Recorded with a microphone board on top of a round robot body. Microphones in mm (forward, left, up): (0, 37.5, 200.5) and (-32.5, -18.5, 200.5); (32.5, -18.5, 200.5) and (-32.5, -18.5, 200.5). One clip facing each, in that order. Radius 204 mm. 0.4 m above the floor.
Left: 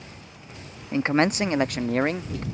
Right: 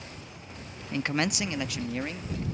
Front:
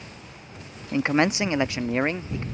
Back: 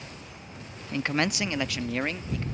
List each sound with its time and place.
0.9 s a man speaking: 35° left; by 2.4 s 60° left